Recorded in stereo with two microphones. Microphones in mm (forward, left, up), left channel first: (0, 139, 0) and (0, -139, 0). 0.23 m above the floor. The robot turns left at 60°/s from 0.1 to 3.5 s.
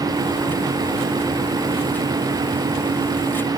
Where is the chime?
No chime in this recording.